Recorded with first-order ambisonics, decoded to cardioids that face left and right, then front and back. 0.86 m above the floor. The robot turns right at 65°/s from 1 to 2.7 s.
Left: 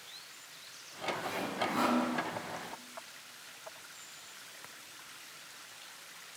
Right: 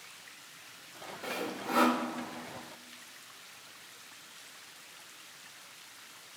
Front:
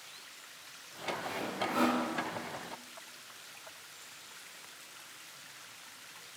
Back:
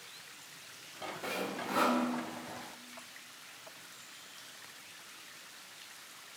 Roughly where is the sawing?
Behind right.